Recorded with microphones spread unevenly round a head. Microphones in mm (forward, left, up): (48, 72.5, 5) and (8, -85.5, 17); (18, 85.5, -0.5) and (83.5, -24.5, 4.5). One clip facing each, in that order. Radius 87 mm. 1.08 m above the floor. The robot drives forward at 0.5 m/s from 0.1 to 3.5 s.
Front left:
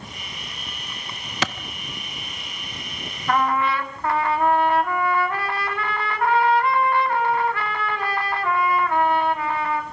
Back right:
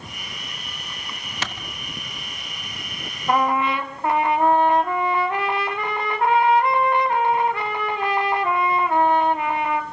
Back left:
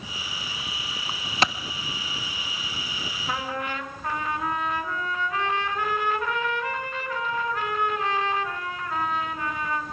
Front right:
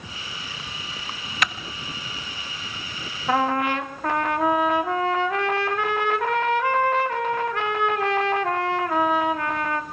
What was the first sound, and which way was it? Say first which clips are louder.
A clap: front left 6 dB, back left 3 dB; 60° left.